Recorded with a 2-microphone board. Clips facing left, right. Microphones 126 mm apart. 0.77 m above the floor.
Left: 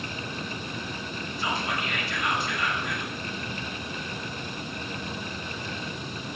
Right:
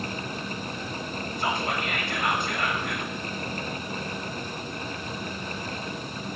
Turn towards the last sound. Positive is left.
turn(degrees=-55)  # may be behind; listen again after turning